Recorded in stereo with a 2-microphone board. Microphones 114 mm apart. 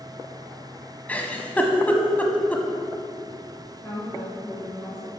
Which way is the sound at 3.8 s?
20° left (ahead or behind).